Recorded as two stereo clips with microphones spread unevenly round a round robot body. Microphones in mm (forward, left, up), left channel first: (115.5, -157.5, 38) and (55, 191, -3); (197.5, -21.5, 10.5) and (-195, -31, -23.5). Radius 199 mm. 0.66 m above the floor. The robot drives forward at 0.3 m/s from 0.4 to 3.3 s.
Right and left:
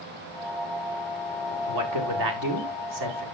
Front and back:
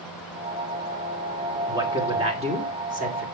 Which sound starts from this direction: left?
A man speaking, at 1.7 s.